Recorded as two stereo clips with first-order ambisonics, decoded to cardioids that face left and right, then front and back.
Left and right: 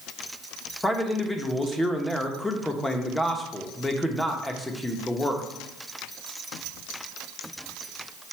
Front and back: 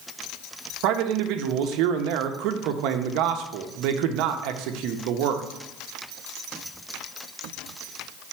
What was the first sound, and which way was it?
A man speaking, 170° left.